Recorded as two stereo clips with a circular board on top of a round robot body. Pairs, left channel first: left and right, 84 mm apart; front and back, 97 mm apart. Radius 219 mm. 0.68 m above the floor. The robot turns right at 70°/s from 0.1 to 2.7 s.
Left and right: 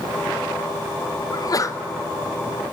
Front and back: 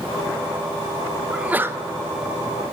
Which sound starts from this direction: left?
A sneeze, at 1.3 s.